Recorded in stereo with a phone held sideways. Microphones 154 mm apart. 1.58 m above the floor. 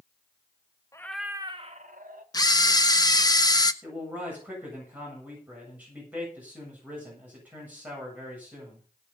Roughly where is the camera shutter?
Left.